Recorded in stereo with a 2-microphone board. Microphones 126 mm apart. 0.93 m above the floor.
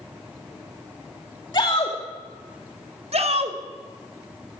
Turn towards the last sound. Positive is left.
turn(degrees=-60)  # may be behind; listen again after turning